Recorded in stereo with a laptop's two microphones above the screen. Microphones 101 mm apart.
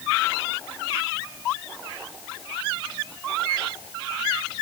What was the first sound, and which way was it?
Only background noise.